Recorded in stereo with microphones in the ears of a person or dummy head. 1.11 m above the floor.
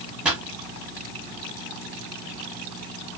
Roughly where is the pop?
Centre.